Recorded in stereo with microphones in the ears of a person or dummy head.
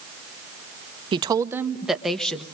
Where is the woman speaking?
25° right (ahead or behind), 0.7 m; by 2.4 s 5° left (ahead or behind), 1.2 m.